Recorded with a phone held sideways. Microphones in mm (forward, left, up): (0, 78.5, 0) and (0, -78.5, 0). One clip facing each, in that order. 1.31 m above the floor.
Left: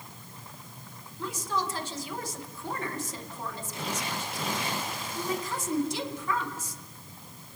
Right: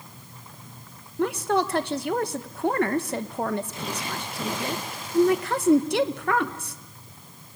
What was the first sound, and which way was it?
A woman speaking, 65° right (ahead or behind).